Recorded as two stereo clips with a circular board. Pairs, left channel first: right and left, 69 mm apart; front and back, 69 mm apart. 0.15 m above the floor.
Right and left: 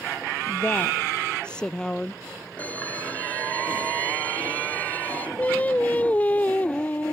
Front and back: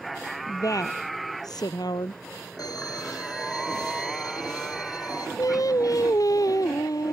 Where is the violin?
25° right.